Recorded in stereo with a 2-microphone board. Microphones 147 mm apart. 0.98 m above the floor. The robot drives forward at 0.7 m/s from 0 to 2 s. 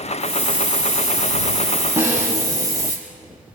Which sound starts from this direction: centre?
A snare drum, at 2.0 s.